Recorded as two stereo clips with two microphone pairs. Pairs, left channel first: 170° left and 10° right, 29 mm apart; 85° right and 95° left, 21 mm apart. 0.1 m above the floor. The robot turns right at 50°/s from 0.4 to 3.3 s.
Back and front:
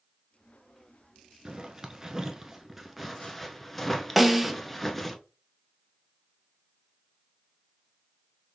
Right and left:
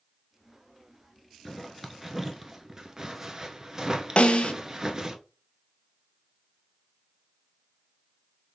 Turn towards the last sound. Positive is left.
turn(degrees=-95)